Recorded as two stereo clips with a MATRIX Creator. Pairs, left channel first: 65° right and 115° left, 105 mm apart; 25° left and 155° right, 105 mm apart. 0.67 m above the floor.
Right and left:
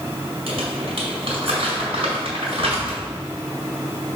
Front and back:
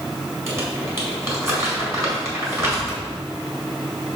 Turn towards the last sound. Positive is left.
turn(degrees=140)